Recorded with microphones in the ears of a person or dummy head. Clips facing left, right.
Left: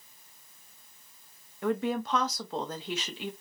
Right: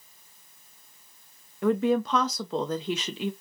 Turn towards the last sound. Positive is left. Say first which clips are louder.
# right 6 dB
turn(degrees=-70)  # may be behind; listen again after turning